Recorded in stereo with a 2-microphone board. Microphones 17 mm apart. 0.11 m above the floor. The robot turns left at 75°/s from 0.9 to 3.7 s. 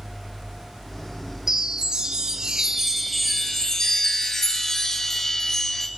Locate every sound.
1.5 s a chime: 45° right, 1.9 m; by 5.9 s 150° left, 1.9 m